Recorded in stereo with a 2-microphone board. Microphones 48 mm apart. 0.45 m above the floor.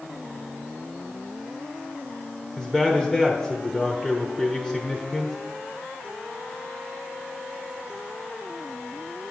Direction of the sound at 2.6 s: Centre (ahead or behind).